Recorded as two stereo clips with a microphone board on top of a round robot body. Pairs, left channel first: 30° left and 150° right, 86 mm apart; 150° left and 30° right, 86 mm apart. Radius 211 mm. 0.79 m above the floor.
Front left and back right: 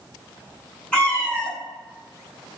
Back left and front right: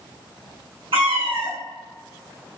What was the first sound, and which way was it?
A cat meowing, 55° right.